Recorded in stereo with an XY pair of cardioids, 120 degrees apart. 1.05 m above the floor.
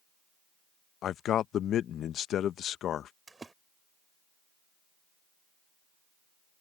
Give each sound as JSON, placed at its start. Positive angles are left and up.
{"t": 1.0, "sound": "a man speaking", "azimuth_deg": 60}
{"t": 3.3, "sound": "a splash", "azimuth_deg": -20}